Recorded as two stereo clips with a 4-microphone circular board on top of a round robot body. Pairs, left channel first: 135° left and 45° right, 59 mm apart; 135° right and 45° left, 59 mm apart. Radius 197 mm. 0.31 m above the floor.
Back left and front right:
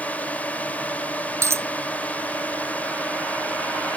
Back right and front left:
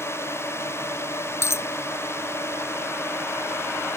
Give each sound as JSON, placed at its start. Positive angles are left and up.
{"t": 0.0, "sound": "a drone", "azimuth_deg": -165}
{"t": 1.4, "sound": "a dropped coin", "azimuth_deg": -90}